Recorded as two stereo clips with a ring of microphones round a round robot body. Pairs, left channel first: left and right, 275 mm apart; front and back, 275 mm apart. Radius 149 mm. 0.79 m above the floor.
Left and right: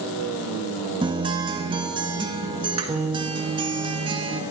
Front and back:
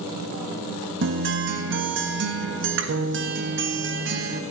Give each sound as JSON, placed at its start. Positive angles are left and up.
{"t": 1.0, "sound": "a guitar", "azimuth_deg": -155, "distance_m": 1.3}